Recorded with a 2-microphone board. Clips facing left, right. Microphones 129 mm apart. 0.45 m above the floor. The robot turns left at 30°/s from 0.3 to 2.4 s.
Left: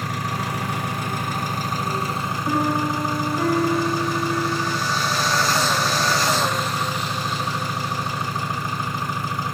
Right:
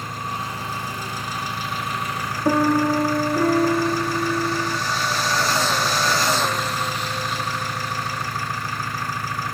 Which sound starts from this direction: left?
An engine running, at 0.0 s.